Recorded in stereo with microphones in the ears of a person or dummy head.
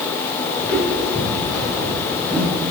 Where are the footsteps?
Centre (ahead or behind), 4 m; by 2.5 s 10° left (ahead or behind), 6 m.